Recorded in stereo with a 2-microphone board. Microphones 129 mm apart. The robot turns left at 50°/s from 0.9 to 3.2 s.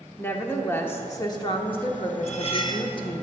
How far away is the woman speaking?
About 1.0 m.